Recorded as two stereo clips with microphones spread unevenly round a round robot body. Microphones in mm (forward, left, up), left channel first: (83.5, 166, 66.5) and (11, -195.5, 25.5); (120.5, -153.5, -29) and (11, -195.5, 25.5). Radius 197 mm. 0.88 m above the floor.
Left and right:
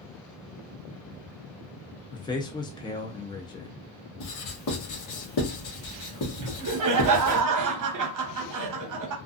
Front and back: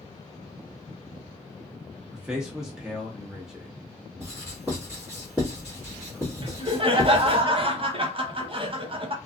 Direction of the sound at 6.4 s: 100° right.